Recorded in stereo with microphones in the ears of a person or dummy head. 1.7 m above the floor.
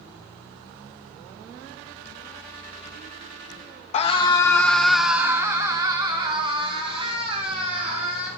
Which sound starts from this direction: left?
A scream, at 3.9 s.